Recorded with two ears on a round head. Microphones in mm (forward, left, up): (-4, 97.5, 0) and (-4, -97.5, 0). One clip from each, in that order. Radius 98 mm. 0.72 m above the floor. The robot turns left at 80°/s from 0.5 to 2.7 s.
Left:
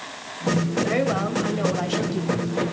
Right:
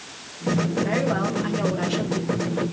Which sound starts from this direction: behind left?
A woman speaking, at 0.8 s.